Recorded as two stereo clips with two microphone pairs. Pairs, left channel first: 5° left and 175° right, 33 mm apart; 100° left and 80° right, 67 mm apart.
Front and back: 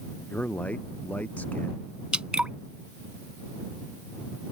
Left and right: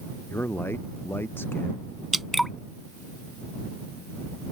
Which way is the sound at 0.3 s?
40° left.